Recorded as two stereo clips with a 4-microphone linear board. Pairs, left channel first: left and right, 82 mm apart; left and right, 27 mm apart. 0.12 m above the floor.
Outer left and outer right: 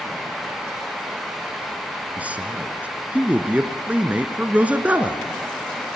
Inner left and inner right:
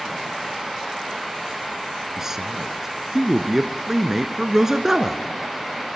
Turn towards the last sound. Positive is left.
turn(degrees=-15)  # may be behind; listen again after turning